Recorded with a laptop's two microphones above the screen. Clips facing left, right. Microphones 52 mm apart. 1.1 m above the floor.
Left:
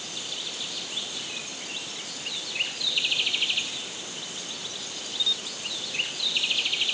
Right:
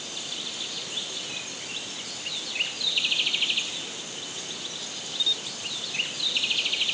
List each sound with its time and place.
Only background noise.